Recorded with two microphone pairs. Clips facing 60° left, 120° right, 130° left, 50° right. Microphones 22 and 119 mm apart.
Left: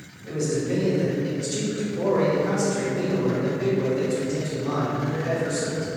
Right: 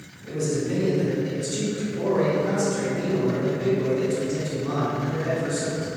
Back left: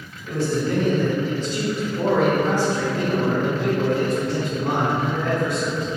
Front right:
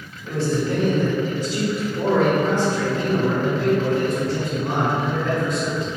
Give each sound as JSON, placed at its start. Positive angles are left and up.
{"t": 0.2, "sound": "a man speaking", "azimuth_deg": -5, "distance_m": 1.6}